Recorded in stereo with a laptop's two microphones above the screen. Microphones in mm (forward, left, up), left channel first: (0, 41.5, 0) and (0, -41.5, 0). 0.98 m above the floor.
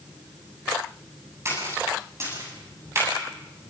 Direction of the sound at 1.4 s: 35° right (ahead or behind).